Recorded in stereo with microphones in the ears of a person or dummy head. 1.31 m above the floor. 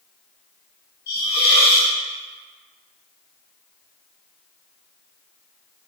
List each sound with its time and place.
1.1 s a hiss: 45° left (ahead or behind), 1.3 m